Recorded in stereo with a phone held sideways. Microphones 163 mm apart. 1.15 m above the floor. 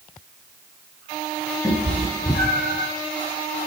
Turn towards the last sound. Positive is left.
turn(degrees=-10)  # may be behind; listen again after turning